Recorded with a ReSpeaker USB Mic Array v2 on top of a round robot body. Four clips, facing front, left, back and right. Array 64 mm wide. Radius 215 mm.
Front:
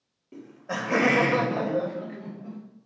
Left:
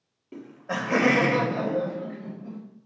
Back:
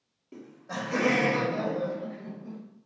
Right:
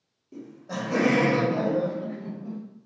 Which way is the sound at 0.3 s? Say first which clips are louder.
Left 3 dB, front 4 dB; 95° left.